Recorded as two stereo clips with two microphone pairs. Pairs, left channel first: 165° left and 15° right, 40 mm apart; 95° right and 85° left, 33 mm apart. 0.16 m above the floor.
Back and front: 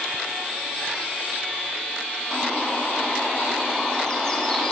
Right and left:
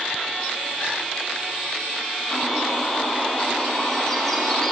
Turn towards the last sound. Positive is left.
turn(degrees=-160)